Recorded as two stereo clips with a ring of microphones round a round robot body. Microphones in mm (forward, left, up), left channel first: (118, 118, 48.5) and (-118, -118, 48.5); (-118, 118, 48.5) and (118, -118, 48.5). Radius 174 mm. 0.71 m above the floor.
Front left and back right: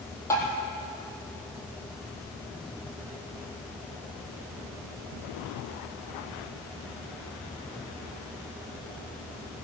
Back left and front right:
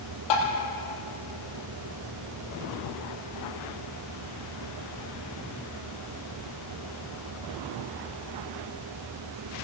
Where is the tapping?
125° left, 4 m.